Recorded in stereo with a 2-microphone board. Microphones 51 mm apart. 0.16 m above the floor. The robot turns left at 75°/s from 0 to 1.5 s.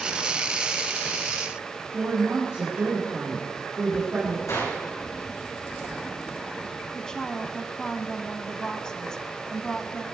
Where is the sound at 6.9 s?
15° left (ahead or behind), 1.1 m.